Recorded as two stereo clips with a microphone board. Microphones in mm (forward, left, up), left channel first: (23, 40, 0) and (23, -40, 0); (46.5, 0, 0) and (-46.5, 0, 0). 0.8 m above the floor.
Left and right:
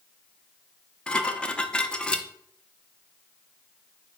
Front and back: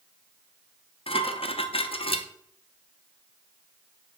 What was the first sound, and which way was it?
Dishes clattering, 10° left.